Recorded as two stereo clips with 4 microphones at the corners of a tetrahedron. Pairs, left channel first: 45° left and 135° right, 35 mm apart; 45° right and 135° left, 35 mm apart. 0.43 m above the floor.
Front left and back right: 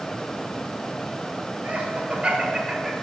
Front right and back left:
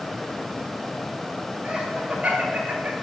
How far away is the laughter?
About 1.8 m.